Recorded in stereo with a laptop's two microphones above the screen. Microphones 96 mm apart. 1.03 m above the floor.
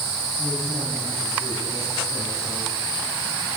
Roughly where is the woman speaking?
Centre.